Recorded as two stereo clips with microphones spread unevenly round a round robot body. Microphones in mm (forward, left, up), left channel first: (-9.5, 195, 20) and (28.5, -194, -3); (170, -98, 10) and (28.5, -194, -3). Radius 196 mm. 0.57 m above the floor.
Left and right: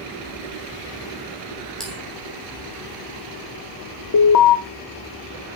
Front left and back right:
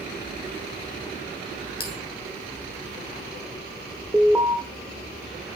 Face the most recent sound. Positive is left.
turn(degrees=135)